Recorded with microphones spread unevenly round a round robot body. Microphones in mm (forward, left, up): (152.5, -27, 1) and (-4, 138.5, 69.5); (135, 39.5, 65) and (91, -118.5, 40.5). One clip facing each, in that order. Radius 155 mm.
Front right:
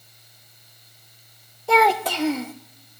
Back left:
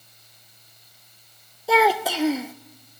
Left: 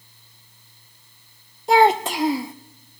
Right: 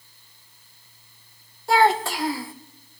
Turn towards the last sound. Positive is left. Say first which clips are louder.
# even, left 3 dB
turn(degrees=10)